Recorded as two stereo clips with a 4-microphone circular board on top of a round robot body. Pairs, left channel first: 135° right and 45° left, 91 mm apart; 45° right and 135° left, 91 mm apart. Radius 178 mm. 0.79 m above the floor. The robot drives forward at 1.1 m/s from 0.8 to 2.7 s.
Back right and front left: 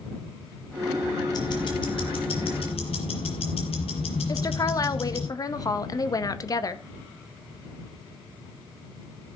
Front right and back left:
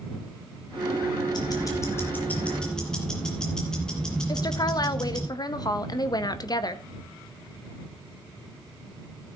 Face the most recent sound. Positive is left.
turn(degrees=-90)